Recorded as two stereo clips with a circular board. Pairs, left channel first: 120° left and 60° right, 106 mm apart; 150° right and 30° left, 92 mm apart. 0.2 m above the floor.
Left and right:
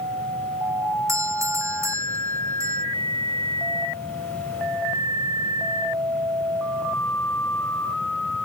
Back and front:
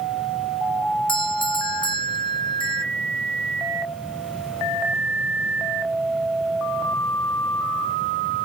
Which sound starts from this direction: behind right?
A doorbell, at 1.1 s.